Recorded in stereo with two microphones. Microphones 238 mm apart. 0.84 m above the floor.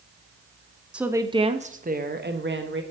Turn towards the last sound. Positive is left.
turn(degrees=-55)  # may be behind; listen again after turning